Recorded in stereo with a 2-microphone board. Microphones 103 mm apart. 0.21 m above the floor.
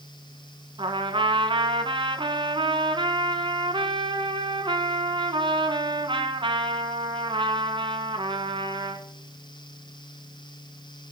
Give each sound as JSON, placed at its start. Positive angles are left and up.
{"t": 0.8, "sound": "a trumpet", "side_deg": -55, "distance_m": 1.2}